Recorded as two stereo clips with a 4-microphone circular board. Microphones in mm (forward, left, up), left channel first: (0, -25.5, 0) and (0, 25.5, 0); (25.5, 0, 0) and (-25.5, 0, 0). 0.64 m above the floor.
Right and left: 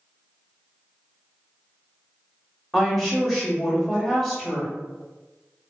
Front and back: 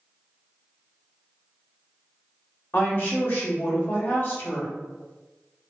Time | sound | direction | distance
2.7 | a woman speaking | straight ahead | 1.0 m